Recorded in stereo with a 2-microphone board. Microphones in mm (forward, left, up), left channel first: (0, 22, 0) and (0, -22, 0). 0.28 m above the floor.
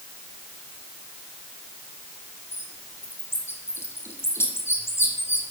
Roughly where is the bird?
Left.